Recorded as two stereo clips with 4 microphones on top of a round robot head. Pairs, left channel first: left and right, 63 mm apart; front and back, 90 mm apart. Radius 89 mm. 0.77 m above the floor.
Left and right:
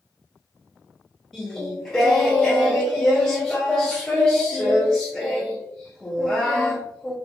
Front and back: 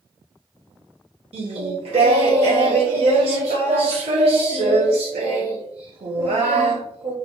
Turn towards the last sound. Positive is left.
turn(degrees=180)